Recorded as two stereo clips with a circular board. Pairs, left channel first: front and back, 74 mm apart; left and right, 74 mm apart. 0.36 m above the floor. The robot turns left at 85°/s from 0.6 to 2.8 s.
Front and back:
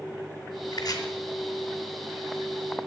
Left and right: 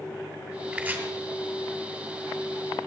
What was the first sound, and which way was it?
Chopping, 15° right.